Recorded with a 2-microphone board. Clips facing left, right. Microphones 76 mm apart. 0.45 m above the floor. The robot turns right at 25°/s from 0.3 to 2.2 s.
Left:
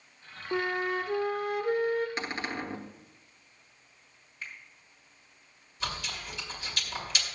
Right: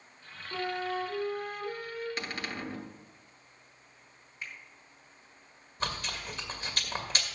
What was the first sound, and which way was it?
A flute, 65° left.